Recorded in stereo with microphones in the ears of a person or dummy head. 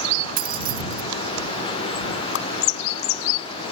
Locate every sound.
0.4 s keys jangling: 50° right (ahead or behind)
2.3 s a whoosh: 65° left (ahead or behind)